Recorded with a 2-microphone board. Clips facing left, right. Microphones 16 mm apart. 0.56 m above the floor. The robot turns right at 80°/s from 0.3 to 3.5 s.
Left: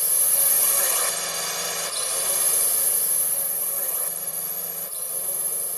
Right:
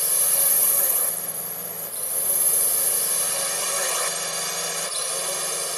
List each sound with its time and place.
0.0 s a drone: 10° right; by 5.8 s 115° right